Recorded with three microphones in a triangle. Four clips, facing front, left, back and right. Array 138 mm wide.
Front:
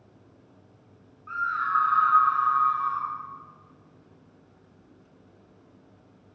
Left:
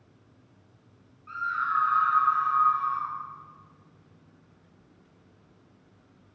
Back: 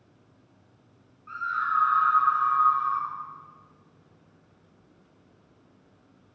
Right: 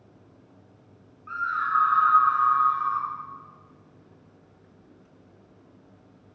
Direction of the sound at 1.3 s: 55° right.